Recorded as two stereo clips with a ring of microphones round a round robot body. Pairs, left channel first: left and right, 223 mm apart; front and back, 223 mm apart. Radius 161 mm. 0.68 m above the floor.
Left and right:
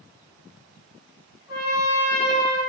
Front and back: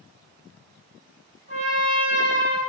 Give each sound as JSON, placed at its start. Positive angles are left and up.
{"t": 1.5, "sound": "a trumpet", "azimuth_deg": 125, "distance_m": 1.0}